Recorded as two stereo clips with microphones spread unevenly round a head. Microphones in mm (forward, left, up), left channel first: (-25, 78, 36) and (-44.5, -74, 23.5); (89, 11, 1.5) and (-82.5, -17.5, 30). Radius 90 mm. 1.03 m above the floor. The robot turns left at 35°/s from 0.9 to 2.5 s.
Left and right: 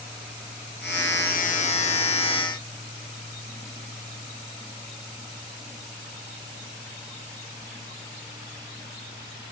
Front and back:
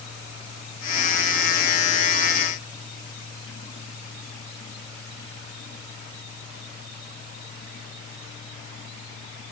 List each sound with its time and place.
Only background noise.